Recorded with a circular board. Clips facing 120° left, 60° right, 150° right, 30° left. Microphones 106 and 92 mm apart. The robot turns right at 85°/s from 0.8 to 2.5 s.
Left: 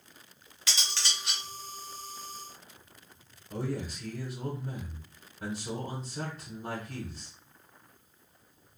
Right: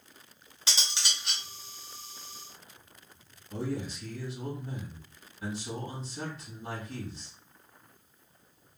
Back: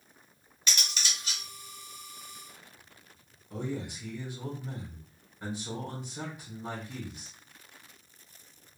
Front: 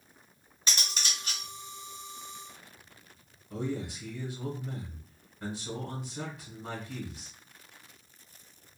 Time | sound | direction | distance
0.7 | cutlery clinking | 10° right | 0.7 m
3.5 | a man speaking | 120° left | 1.5 m